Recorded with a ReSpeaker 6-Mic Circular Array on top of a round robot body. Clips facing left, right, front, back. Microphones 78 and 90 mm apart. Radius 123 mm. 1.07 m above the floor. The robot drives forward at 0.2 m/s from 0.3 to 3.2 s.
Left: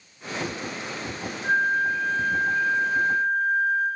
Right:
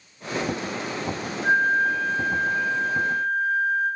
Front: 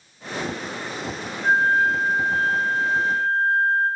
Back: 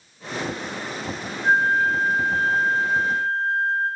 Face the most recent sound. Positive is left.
turn(degrees=-120)